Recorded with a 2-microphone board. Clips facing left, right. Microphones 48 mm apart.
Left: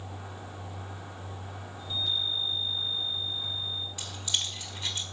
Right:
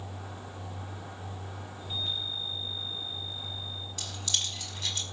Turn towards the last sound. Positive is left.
turn(degrees=15)  # may be behind; listen again after turning